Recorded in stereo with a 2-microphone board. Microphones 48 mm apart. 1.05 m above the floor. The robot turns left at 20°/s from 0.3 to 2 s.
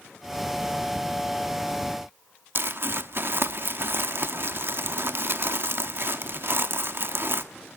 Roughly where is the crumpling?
Right.